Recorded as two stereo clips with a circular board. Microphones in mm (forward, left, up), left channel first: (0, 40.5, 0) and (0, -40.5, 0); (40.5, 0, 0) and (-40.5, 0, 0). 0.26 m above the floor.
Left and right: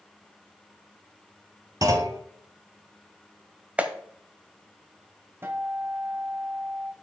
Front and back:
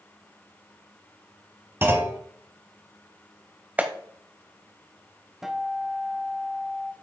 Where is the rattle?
I don't hear a rattle.